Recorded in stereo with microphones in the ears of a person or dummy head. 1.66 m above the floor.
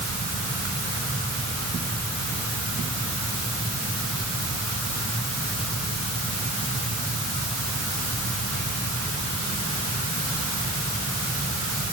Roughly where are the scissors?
I don't hear scissors.